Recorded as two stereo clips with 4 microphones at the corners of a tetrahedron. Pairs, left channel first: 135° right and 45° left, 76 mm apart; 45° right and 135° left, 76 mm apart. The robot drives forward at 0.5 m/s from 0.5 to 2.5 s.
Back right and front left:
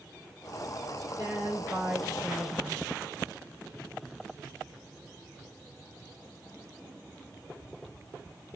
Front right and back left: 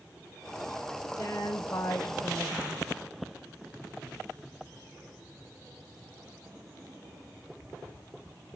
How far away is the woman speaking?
About 5 m.